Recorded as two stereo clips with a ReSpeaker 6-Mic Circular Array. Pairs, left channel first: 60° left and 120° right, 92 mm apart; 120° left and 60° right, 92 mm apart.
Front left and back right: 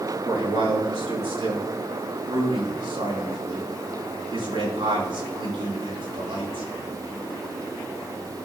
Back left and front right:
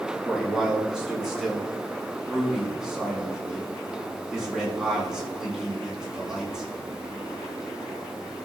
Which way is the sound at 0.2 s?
145° right.